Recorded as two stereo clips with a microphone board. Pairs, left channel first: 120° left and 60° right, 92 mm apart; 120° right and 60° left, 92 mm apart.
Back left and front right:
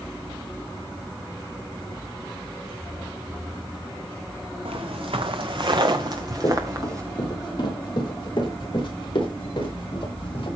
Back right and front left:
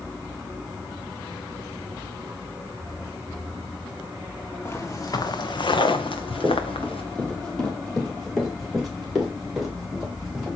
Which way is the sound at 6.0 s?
160° left.